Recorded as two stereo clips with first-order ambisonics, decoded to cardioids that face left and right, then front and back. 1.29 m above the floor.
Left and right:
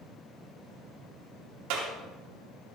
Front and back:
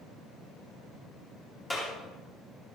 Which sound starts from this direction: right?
A clap, at 1.7 s.